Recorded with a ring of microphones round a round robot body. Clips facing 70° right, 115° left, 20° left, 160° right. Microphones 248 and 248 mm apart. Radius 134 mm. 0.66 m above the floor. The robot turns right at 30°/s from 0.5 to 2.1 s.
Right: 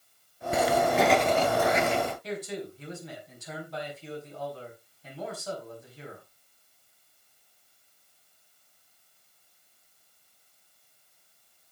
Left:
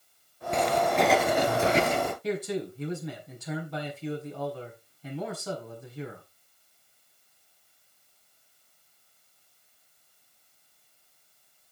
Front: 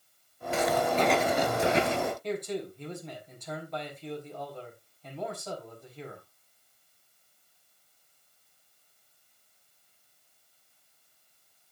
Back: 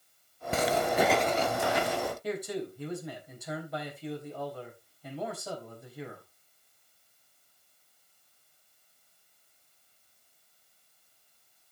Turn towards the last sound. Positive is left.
turn(degrees=120)